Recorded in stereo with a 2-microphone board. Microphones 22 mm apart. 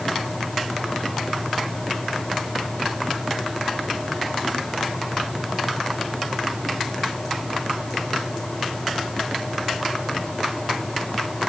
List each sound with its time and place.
Only background noise.